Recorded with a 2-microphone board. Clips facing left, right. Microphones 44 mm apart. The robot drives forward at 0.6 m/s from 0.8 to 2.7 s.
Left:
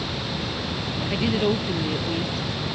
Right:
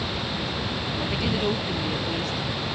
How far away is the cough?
No cough in this recording.